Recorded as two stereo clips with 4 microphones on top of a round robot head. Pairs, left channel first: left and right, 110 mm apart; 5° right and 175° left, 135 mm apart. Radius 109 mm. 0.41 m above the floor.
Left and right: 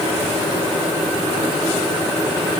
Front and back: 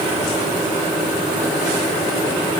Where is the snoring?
No snoring in this recording.